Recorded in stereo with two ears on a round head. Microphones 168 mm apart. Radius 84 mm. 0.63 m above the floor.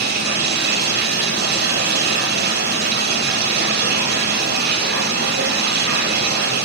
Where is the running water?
55° right (ahead or behind), 2 m.